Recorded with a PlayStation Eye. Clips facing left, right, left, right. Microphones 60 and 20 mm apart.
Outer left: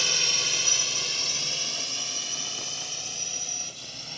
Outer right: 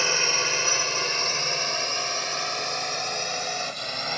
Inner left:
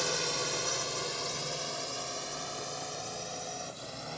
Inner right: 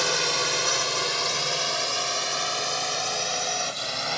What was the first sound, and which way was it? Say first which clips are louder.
A drone: outer right 6 dB, inner right 8 dB; 35° right (ahead or behind).